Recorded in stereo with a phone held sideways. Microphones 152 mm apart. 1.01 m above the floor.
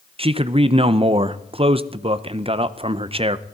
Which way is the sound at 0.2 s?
35° right (ahead or behind).